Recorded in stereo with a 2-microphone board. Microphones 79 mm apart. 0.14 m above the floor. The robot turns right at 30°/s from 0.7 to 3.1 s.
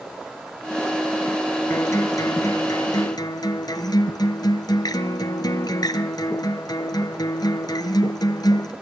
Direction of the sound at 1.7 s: 40° left.